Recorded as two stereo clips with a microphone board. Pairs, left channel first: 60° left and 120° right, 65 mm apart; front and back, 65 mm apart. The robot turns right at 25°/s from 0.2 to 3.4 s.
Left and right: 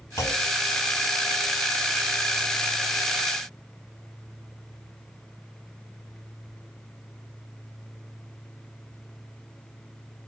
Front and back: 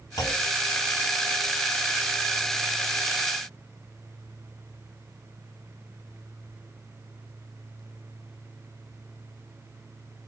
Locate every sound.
0.2 s a clunk: 15° left, 3.5 m; by 0.5 s 25° left, 3.5 m